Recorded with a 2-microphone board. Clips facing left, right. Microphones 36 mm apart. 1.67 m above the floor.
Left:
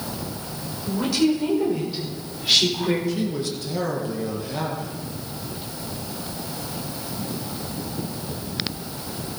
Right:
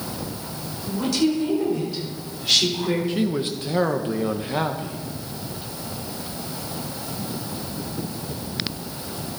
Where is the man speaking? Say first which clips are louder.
Right 2 dB; 35° right (ahead or behind), 1.2 m.